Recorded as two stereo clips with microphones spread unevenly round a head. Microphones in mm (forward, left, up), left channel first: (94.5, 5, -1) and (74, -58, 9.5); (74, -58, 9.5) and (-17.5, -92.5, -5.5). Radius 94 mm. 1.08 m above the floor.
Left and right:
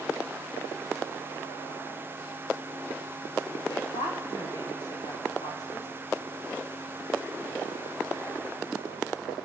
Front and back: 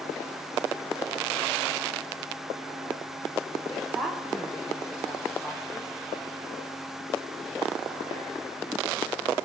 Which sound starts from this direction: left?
A woman speaking, at 3.7 s.